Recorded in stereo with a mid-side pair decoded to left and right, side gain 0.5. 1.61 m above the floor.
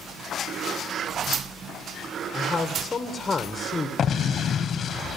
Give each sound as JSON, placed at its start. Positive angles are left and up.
{"t": 2.3, "sound": "a man speaking", "azimuth_deg": 25, "distance_m": 1.3}
{"t": 4.0, "sound": "an explosion", "azimuth_deg": 50, "distance_m": 1.2}